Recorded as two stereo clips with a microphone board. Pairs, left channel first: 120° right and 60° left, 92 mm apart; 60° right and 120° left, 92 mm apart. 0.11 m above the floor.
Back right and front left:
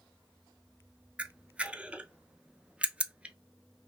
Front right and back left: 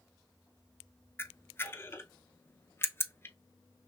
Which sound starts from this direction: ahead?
A camera shutter, at 1.2 s.